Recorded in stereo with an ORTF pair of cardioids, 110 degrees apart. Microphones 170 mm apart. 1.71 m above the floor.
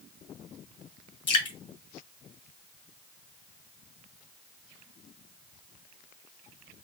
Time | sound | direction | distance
1.3 | dripping | 35° left | 2 m